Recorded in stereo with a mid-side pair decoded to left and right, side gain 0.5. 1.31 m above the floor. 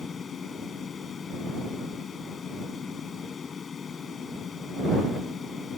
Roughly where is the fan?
Ahead left.